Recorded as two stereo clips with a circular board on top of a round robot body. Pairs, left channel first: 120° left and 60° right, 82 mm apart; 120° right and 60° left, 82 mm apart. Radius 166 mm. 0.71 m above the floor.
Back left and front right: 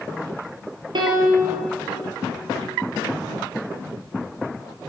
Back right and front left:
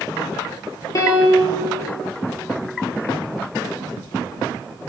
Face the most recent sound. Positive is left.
turn(degrees=-75)